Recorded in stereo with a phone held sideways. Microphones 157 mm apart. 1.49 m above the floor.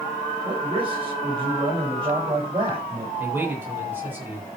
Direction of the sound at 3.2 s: 15° right (ahead or behind).